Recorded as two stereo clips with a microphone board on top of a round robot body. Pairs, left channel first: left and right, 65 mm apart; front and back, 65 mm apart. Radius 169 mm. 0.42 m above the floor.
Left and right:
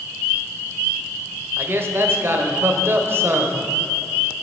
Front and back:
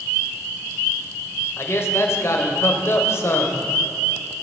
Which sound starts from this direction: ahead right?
A man speaking, at 1.6 s.